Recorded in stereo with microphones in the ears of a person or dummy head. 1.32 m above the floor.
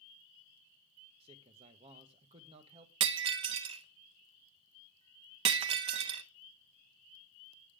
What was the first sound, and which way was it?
A man speaking, 35° right (ahead or behind).